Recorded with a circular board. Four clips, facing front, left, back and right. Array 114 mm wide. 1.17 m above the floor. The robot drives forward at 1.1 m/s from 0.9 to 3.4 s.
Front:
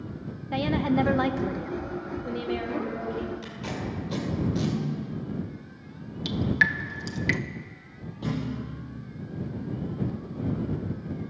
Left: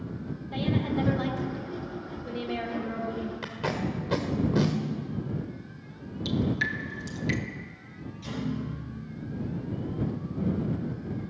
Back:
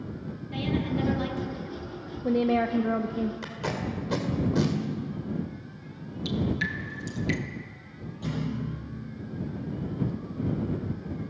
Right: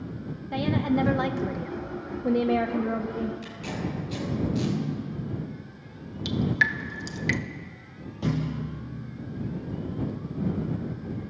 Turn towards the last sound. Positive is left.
turn(degrees=-75)